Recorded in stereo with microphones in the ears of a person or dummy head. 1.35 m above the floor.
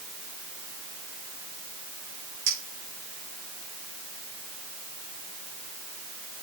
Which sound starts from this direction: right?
A clink, at 2.5 s.